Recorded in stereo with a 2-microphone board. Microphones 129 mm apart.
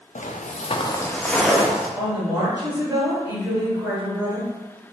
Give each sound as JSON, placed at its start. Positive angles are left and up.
{"t": 0.1, "sound": "footsteps", "side_deg": 75, "distance_m": 0.7}
{"t": 2.0, "sound": "a woman speaking", "side_deg": -15, "distance_m": 1.8}